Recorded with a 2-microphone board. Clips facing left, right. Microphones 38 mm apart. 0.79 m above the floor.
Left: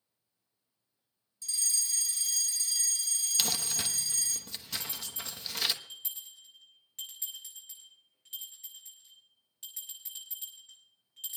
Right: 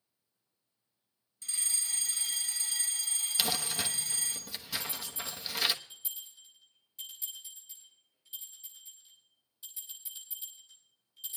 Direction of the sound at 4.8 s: 60° left (ahead or behind).